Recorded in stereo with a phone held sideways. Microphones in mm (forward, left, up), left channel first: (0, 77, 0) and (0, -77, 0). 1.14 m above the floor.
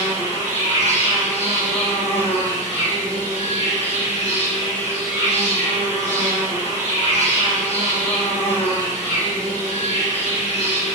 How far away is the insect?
About 1.6 m.